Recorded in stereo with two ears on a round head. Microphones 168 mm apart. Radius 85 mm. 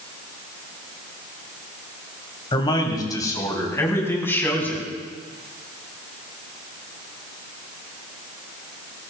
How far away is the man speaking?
About 2.5 m.